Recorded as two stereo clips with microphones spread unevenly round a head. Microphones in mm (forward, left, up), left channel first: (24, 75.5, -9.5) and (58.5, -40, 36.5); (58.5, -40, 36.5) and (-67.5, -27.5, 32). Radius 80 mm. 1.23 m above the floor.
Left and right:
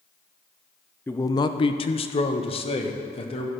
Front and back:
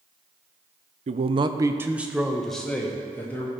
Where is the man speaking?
160° left, 0.6 m; by 3.5 s 70° left, 1.8 m.